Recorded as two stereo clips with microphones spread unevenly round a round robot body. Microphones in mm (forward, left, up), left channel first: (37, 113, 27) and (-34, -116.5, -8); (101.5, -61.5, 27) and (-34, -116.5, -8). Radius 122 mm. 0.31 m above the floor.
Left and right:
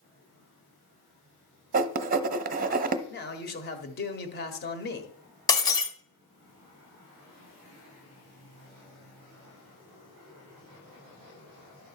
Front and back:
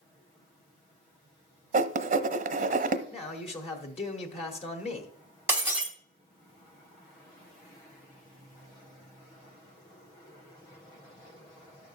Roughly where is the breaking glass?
Behind left.